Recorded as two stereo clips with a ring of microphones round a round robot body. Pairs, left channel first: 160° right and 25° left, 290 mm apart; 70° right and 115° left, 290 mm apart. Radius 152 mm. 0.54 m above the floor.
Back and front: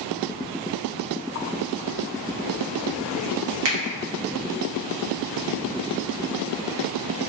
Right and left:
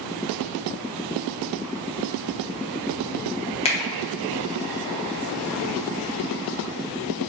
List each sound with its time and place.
3.6 s a finger snap: straight ahead, 0.7 m